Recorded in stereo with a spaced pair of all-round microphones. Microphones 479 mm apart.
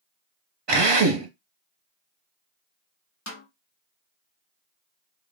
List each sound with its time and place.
0.7 s a drill: 55° right (ahead or behind), 0.6 m
3.3 s a snare drum: 30° left (ahead or behind), 1.0 m